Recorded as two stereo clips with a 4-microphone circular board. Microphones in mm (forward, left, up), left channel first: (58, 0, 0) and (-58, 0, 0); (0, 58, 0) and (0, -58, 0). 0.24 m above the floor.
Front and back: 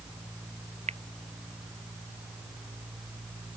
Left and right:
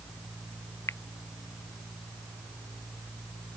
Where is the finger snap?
155° left.